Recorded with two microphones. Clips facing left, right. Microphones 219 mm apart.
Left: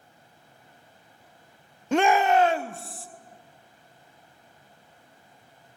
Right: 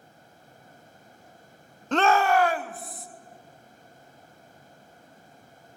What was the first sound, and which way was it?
A shout, 10° left (ahead or behind).